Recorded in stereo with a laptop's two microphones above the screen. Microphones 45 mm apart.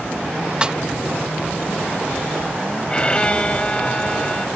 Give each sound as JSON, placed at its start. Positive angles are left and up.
{"t": 0.6, "sound": "a snare drum", "side_deg": -25}
{"t": 2.9, "sound": "a violin", "side_deg": 20}